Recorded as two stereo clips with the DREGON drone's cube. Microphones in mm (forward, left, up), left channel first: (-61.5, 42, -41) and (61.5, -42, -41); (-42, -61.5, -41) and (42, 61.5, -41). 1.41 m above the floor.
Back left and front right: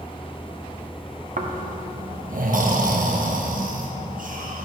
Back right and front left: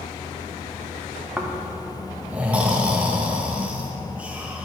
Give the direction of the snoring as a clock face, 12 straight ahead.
1 o'clock.